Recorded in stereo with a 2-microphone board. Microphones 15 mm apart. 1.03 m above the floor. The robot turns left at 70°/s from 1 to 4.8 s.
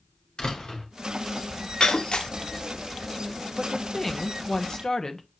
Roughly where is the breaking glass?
Left.